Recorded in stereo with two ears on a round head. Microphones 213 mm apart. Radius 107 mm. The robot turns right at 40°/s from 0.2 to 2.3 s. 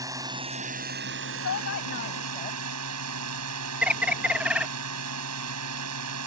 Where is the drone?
165° right; by 6.3 s 80° right.